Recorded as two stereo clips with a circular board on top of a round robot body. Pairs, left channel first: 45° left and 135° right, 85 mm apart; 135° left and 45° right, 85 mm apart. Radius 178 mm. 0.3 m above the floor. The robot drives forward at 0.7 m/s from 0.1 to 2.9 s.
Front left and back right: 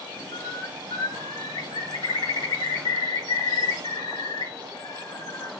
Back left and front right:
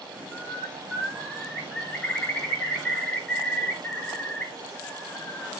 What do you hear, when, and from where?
0.3 s a bird: 50° left, 6.5 m; by 5.5 s 65° left, 5.5 m